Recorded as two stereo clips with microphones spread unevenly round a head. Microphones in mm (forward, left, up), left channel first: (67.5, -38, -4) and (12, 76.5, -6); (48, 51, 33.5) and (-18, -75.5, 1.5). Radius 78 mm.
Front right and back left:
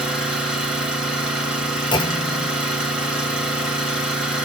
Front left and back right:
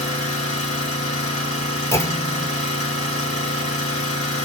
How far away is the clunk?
About 0.5 m.